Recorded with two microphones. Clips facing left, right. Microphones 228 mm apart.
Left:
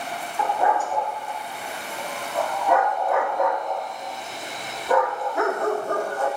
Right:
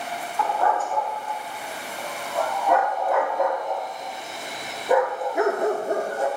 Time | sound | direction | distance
0.4 | a dog barking | 15° left (ahead or behind) | 5.5 m